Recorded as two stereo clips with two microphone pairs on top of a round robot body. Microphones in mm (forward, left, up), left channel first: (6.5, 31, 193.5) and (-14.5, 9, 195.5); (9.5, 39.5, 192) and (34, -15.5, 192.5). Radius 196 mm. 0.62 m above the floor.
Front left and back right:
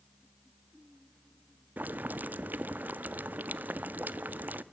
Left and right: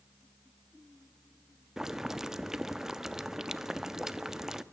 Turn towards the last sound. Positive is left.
turn(degrees=-150)